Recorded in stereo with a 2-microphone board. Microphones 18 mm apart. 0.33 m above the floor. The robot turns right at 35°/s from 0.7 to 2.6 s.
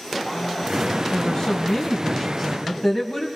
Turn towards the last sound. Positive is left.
turn(degrees=145)